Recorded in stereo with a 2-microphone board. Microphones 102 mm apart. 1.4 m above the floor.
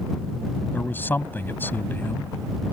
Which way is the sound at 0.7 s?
20° left (ahead or behind).